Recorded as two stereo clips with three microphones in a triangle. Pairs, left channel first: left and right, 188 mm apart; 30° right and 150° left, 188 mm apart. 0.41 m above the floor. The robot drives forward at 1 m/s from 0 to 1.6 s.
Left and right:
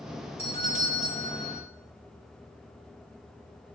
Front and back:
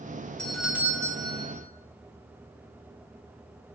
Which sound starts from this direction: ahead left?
A doorbell, at 0.4 s.